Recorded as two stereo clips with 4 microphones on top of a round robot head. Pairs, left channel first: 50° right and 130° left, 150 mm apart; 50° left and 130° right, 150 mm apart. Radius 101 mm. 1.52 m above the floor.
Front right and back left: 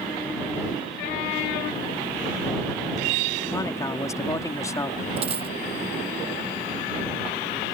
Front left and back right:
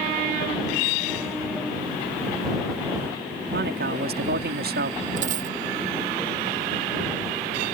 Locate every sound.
3.5 s a man speaking: 120° right
5.2 s a dropped coin: 175° right